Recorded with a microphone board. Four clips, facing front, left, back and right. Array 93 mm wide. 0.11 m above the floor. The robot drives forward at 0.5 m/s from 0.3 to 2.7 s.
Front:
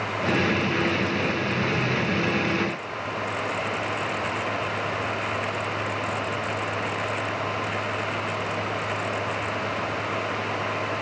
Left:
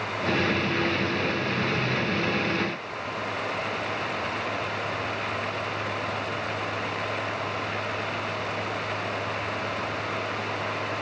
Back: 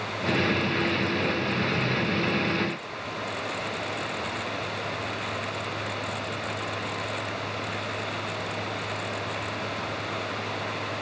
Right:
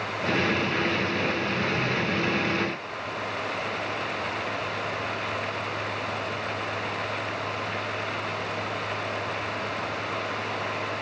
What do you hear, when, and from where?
Only background noise.